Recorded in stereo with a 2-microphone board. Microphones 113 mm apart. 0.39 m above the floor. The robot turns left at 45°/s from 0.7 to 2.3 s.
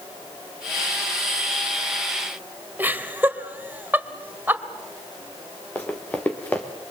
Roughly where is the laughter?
Centre.